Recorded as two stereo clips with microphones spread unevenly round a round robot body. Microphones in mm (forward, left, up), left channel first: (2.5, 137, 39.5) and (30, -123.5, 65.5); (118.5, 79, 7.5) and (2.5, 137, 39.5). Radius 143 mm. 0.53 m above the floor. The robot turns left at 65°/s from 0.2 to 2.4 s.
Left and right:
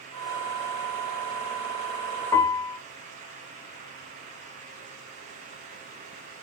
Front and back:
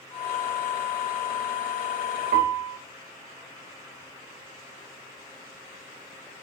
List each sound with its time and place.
2.3 s a piano: 175° left, 0.6 m; by 2.8 s 165° left, 0.6 m